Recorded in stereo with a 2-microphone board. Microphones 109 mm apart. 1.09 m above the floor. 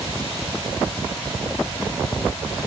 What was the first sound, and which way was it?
Only background noise.